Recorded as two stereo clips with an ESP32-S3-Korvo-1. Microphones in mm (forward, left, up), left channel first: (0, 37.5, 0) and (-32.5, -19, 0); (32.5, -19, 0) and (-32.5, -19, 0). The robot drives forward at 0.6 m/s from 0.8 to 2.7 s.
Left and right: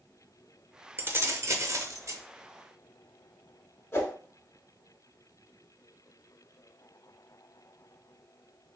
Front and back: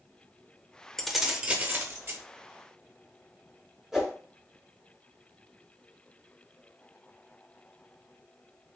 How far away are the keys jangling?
About 0.7 m.